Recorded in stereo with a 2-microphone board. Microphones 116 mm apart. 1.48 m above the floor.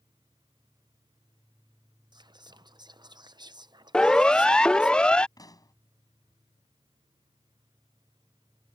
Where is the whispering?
40° right (ahead or behind).